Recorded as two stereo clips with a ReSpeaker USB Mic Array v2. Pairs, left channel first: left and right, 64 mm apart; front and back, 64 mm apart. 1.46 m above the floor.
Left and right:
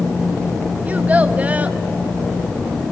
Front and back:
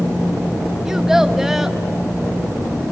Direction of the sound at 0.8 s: 105° right.